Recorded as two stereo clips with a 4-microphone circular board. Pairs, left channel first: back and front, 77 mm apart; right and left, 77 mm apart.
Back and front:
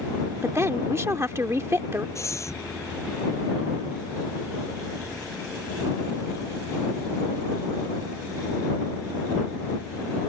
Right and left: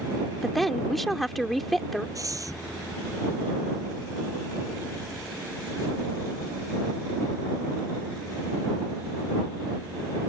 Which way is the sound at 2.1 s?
130° left.